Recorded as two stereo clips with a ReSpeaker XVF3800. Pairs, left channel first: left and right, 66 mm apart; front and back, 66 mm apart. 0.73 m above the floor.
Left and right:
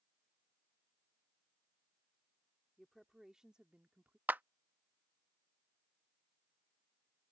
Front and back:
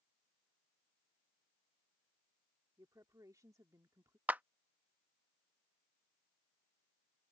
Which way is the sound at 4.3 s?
130° right.